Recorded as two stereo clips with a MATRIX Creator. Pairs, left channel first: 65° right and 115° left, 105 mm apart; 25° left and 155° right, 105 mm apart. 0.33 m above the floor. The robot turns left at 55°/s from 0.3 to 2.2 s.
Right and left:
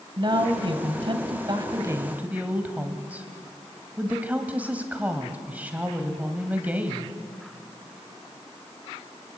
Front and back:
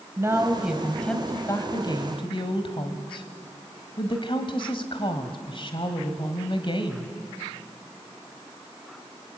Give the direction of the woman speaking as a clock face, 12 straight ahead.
7 o'clock.